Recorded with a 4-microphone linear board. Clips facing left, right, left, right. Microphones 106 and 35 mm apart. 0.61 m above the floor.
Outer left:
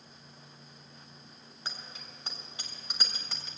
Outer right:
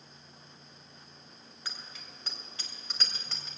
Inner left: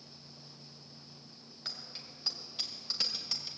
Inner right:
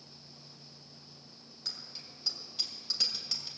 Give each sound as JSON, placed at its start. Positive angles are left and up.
{"t": 1.6, "sound": "a bicycle bell", "side_deg": 25, "distance_m": 2.5}